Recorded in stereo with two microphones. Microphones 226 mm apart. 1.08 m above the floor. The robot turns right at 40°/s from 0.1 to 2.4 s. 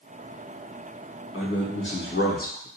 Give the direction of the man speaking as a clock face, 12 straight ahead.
9 o'clock.